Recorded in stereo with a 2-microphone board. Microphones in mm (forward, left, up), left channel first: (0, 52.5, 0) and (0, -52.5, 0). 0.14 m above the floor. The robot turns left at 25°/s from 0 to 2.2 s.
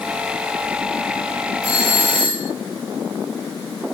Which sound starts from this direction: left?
A doorbell, at 1.6 s.